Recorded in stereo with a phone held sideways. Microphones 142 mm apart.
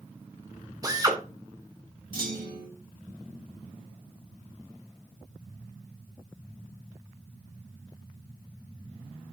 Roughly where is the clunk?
Right.